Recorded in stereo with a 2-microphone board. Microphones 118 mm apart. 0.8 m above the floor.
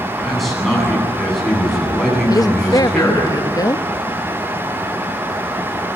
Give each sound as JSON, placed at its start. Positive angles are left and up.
{"t": 0.2, "sound": "a man speaking", "side_deg": 0, "distance_m": 9.0}
{"t": 2.3, "sound": "a woman speaking", "side_deg": 35, "distance_m": 0.7}